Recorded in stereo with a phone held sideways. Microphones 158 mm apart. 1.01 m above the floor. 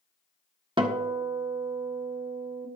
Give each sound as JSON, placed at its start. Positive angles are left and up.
{"t": 0.8, "sound": "a guitar", "side_deg": -35, "distance_m": 1.4}